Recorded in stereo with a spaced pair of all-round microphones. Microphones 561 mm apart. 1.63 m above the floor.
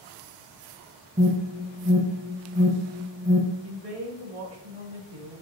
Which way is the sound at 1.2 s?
15° right (ahead or behind).